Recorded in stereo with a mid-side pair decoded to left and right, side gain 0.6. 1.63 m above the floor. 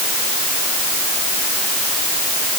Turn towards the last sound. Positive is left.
No sound to turn to.